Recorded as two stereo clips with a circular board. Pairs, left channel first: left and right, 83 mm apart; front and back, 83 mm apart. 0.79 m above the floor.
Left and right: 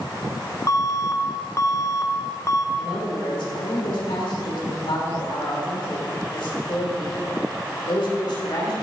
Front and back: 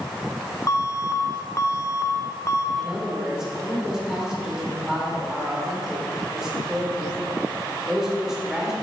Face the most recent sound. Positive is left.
turn(degrees=95)